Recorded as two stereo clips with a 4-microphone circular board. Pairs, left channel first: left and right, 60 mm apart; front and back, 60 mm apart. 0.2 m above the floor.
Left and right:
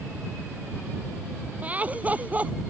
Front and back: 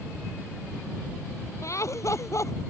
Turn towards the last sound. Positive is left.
turn(degrees=-25)